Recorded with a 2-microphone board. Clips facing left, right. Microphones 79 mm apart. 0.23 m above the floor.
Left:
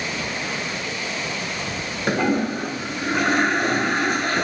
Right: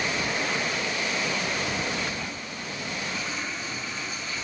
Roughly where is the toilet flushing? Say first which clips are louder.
Left 14 dB; left.